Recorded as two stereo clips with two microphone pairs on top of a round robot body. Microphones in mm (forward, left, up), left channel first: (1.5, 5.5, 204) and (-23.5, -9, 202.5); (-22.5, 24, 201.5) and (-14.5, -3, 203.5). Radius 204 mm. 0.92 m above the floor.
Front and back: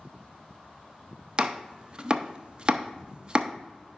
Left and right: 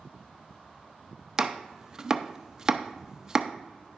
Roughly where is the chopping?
Behind right.